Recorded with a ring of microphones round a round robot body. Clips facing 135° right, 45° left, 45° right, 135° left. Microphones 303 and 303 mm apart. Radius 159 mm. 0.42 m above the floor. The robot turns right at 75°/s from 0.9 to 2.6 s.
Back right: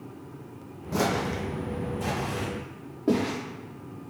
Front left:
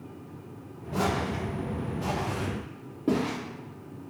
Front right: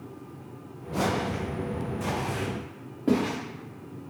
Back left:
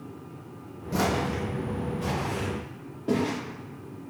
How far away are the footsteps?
About 1.0 m.